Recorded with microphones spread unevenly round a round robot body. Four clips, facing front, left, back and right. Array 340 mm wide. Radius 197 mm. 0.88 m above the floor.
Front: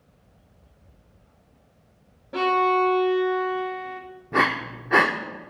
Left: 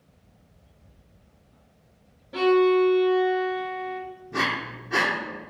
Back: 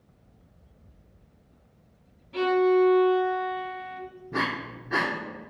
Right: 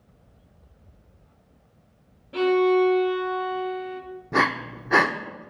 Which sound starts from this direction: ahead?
A violin, at 2.3 s.